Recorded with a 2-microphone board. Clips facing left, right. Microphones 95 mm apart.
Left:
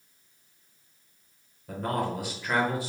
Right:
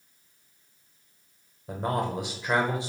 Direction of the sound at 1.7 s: 25° right (ahead or behind).